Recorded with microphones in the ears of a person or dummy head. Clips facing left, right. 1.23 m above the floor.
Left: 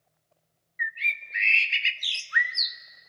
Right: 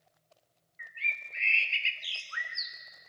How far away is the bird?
About 0.6 m.